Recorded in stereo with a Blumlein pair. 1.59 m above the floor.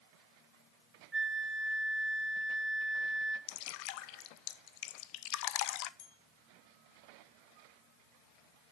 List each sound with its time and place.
1.1 s a flute: 5° right, 1.2 m
3.5 s dripping: 40° left, 0.8 m
6.0 s a bell: 50° left, 2 m